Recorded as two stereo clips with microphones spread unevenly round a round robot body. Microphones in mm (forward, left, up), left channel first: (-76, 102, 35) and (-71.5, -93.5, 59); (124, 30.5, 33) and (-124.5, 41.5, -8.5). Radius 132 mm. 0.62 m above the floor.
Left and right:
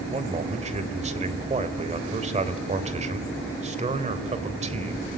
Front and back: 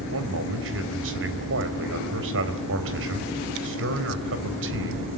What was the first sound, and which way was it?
A man speaking, 145° right.